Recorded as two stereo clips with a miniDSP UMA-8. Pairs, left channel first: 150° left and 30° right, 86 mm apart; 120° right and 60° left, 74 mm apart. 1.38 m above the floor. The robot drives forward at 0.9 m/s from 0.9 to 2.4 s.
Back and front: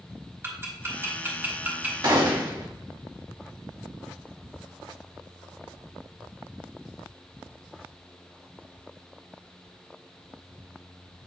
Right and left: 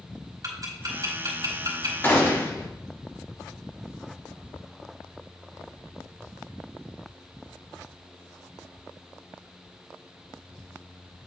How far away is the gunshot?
About 1.7 m.